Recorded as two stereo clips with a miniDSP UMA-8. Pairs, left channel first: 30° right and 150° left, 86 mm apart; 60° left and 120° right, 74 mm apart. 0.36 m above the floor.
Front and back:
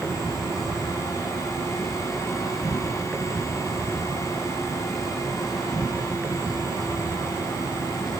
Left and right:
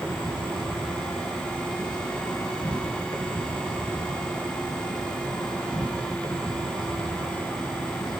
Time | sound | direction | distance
0.0 | an insect | 60° left | 7.5 m